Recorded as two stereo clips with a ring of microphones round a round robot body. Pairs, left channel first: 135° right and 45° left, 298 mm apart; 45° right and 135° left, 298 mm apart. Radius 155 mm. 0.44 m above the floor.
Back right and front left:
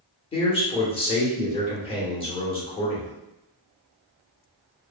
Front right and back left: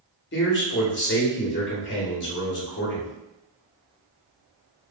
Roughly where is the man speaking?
Right.